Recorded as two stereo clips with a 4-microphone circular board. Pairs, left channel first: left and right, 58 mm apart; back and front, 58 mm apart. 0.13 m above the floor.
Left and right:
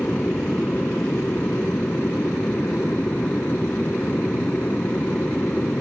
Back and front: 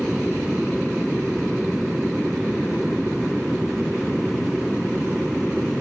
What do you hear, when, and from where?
0.0 s an aircraft: 80° left